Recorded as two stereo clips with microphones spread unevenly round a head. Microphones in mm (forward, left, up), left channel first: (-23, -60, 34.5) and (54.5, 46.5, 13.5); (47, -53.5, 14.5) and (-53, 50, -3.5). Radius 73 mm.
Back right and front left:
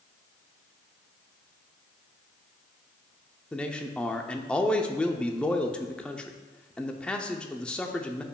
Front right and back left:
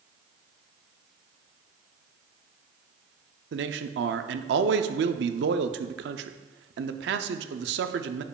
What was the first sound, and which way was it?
A man speaking, 150° left.